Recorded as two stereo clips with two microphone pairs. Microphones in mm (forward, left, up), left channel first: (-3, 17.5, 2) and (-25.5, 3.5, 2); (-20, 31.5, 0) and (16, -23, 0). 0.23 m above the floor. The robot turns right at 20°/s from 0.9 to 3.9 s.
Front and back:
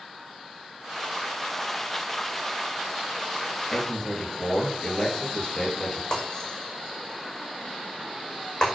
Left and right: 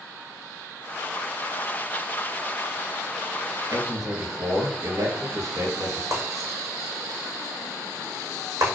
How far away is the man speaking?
About 4 m.